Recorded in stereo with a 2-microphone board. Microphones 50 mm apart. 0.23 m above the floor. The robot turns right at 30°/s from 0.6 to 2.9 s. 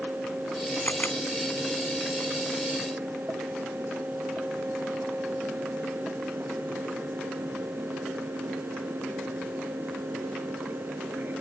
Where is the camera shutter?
40° left (ahead or behind); by 1.2 s 45° left (ahead or behind).